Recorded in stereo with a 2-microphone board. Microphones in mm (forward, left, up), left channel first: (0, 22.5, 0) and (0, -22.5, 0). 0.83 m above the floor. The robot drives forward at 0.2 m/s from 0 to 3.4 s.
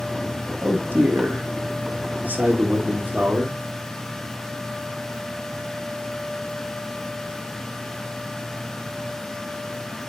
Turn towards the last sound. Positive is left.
turn(degrees=-35)  # may be behind; listen again after turning